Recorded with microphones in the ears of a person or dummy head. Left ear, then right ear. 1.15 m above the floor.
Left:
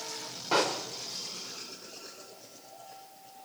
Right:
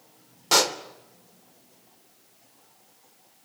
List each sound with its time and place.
0.5 s a pop: 85° right, 2.5 m